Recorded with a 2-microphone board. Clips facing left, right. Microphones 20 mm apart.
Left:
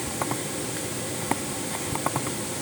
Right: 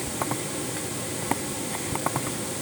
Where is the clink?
I don't hear a clink.